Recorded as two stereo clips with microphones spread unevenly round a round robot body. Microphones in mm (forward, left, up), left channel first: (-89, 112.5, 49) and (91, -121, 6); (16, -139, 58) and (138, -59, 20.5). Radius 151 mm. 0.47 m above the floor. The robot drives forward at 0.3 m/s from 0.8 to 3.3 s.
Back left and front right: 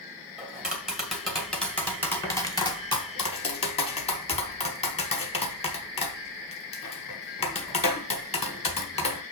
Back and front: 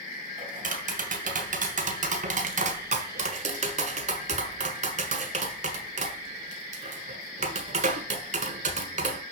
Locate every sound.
0.4 s tapping: 30° left, 1.7 m; by 9.2 s 55° left, 1.2 m